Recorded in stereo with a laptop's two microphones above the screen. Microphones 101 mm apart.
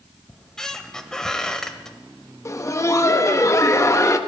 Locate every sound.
0.3 s a squeak: 5° left (ahead or behind), 0.9 m
2.5 s laughter: 30° left (ahead or behind), 1.0 m